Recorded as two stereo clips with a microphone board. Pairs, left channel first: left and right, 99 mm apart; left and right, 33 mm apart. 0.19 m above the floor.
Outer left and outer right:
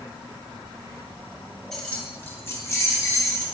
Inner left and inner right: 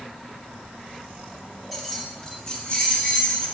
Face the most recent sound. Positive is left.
turn(degrees=30)  # may be behind; listen again after turning